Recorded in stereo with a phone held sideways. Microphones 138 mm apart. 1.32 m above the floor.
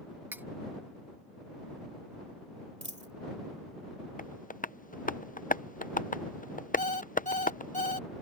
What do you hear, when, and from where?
0.3 s cutlery clinking: 15° right (ahead or behind)
2.8 s a dropped coin: 60° right (ahead or behind)
4.2 s tapping: 80° left
6.8 s an alarm clock: 65° left (ahead or behind)